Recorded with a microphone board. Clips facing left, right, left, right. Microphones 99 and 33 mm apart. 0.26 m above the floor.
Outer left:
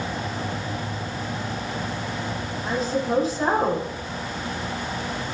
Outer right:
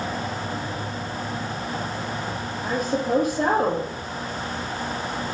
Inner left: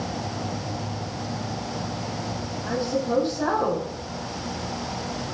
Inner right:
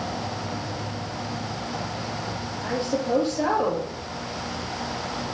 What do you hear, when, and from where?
2.6 s a woman speaking: 55° right (ahead or behind), 5.5 m